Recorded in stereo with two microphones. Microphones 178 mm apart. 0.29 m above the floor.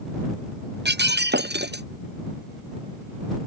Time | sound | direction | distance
0.8 | breaking glass | 70° right (ahead or behind) | ?